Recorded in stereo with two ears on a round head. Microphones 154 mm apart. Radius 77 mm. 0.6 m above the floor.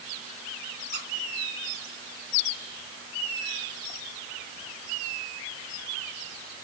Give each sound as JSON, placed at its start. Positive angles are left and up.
{"t": 0.9, "sound": "a squeak", "side_deg": -50, "distance_m": 2.5}